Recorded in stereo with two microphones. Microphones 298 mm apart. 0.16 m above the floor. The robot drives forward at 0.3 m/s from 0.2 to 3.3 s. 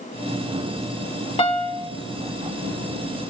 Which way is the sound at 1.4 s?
20° left (ahead or behind).